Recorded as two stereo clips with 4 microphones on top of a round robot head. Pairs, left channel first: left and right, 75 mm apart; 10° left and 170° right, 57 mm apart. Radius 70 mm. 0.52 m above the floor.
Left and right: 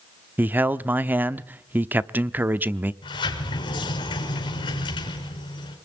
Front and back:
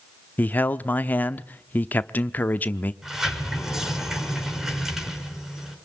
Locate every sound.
0.4 s a man speaking: 35° right, 0.9 m
3.0 s a sliding door: 105° left, 5.5 m